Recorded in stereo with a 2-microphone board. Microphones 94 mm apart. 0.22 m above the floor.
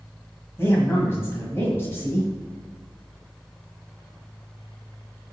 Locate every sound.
0.6 s a man speaking: 25° left (ahead or behind), 1.4 m